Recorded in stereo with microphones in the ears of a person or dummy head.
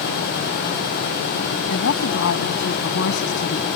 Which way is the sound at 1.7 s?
65° left (ahead or behind).